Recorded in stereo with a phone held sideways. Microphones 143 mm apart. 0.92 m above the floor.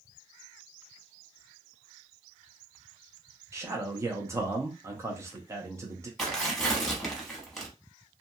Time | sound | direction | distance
3.5 | a man speaking | 20° right (ahead or behind) | 0.6 m
6.2 | tearing paper | centre (ahead or behind) | 0.9 m